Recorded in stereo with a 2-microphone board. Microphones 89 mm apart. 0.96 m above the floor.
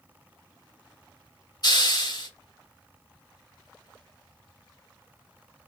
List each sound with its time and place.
1.6 s a hiss: 55° left (ahead or behind), 2.5 m